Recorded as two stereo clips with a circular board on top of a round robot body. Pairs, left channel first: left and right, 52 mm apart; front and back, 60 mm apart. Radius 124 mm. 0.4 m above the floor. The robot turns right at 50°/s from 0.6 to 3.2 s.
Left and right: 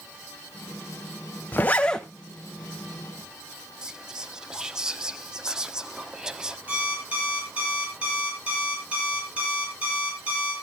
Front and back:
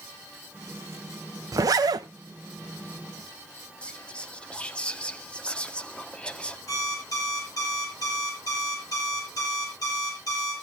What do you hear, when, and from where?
1.5 s a zipper: 145° left, 0.7 m; by 2.1 s 175° left, 0.7 m
3.8 s whispering: 40° right, 1.0 m
6.7 s an alarm clock: 25° right, 9 m